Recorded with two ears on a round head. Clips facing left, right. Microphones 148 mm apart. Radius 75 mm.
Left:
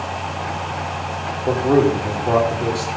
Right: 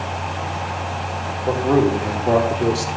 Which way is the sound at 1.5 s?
10° left (ahead or behind).